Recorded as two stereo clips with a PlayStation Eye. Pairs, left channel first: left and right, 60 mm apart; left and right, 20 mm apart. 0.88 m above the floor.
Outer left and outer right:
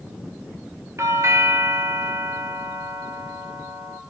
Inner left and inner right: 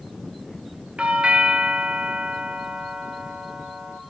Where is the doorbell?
60° right (ahead or behind), 1.3 m.